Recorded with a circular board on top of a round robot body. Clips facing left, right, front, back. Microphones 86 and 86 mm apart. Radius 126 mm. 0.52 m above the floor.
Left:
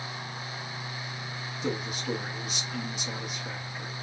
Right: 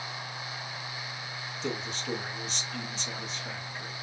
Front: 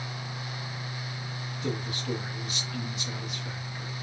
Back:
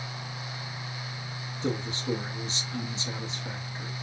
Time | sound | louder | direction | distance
1.6 | a man speaking | left 3 dB, back 3 dB | 165° left | 0.8 m